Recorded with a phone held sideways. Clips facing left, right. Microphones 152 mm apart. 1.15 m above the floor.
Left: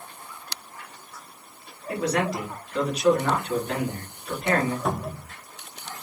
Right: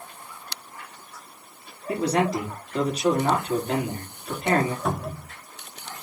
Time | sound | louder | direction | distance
1.9 | a man speaking | right 2 dB | 30° right (ahead or behind) | 2.5 m
4.8 | a cupboard door | even | centre (ahead or behind) | 0.8 m